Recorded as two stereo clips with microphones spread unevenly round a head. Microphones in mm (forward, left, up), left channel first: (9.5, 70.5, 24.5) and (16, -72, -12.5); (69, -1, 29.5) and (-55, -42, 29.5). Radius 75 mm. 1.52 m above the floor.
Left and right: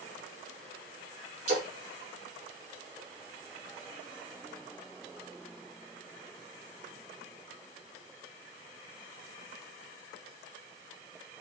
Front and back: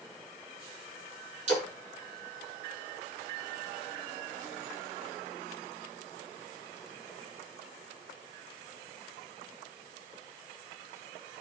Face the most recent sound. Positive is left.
turn(degrees=-135)